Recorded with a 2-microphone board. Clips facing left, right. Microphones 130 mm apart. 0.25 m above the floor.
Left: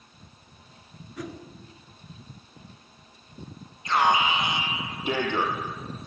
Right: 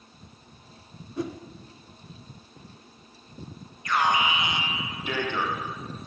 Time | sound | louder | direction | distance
1.2 | a whoosh | right 5 dB | 25° right (ahead or behind) | 2.5 m
3.9 | an alarm | left 2 dB | 25° left (ahead or behind) | 4.5 m